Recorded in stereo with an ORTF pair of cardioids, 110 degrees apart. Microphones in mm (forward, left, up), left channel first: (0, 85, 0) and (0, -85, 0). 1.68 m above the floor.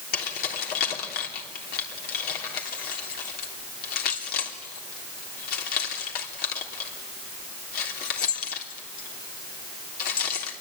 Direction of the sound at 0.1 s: 70° left.